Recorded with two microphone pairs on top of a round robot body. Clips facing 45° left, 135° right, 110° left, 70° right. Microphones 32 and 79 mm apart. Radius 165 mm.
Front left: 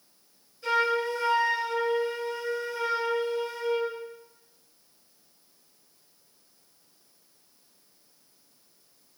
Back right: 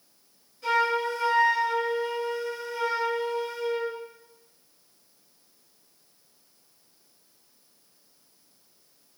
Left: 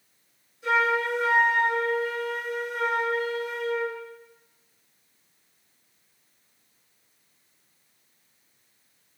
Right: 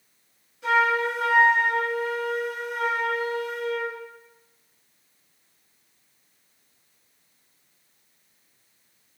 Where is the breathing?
I don't hear breathing.